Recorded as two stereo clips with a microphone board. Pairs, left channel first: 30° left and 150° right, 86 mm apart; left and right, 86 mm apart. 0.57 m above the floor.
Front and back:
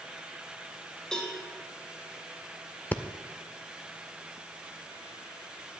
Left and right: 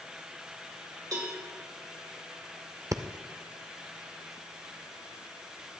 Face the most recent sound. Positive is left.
turn(degrees=-40)